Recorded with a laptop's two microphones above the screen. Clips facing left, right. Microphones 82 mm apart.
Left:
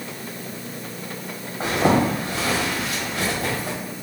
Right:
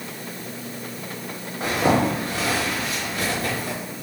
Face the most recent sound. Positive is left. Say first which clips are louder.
# left 1 dB
turn(degrees=65)  # may be behind; listen again after turning